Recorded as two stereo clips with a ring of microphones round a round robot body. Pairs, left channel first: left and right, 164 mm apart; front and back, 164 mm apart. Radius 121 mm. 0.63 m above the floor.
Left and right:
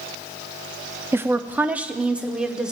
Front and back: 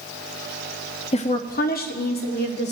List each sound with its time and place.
1.1 s a woman speaking: 20° right, 0.6 m; by 2.7 s 5° right, 1.6 m